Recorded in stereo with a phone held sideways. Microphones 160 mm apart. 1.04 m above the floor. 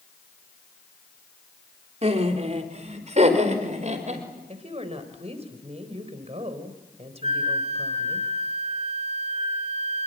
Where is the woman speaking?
40° right (ahead or behind), 3.5 m.